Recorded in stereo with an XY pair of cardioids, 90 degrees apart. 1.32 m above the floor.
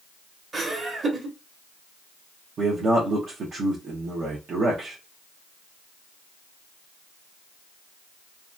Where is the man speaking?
60° right, 0.9 m.